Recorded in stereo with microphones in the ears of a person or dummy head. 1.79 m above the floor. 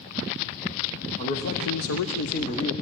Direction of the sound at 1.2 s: 40° left (ahead or behind).